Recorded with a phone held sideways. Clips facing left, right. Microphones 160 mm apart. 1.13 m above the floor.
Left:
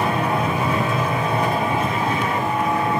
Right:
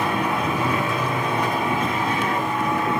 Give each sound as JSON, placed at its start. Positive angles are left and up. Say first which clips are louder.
{"t": 0.0, "sound": "a machine running", "louder": "left 2 dB", "side_deg": 25, "distance_m": 7.5}